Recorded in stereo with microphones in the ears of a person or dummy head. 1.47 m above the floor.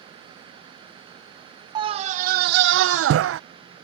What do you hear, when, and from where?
1.8 s a scream: 25° right (ahead or behind); by 3.4 s 80° right